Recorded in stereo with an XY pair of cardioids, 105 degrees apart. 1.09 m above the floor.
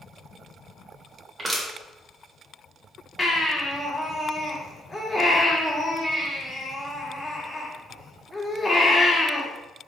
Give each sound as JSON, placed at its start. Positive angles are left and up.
{"t": 1.4, "sound": "crushing", "azimuth_deg": -15, "distance_m": 1.5}
{"t": 3.2, "sound": "a baby crying", "azimuth_deg": 20, "distance_m": 1.8}